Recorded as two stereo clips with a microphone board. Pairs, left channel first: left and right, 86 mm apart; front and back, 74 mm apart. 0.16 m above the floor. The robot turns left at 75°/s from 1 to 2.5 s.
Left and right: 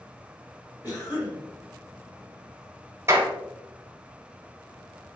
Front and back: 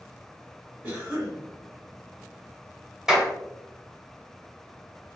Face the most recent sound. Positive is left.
turn(degrees=-105)